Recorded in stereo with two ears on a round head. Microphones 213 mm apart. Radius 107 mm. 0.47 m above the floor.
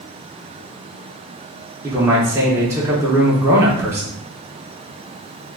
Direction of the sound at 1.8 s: 15° right (ahead or behind).